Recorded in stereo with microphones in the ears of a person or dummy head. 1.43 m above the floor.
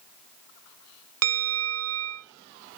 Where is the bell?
70° right (ahead or behind), 0.5 m.